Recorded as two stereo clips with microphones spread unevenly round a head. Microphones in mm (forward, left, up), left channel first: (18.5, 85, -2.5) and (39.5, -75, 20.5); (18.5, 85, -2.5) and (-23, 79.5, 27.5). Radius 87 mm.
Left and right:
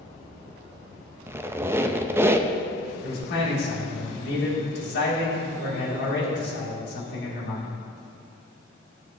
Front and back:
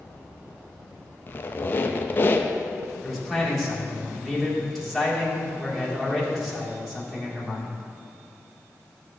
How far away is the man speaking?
About 2.5 m.